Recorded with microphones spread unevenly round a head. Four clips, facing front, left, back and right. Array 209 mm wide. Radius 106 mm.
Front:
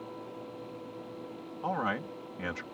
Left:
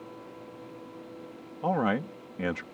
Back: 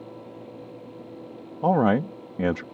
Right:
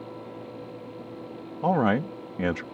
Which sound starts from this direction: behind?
A man speaking, at 1.6 s.